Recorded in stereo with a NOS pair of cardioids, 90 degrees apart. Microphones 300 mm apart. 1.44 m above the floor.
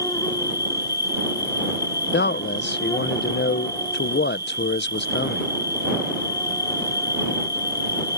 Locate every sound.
0.0 s an insect: 10° left
2.1 s a man speaking: 35° left